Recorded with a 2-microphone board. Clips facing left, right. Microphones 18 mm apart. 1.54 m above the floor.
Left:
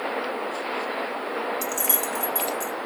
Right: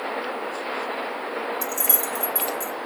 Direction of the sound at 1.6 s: 20° left (ahead or behind).